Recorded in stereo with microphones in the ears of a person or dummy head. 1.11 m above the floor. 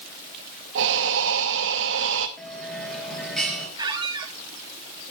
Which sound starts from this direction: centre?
A bell, at 2.4 s.